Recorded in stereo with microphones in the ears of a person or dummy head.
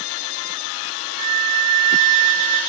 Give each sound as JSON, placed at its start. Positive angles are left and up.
{"t": 1.2, "sound": "a flute", "side_deg": -30, "distance_m": 0.5}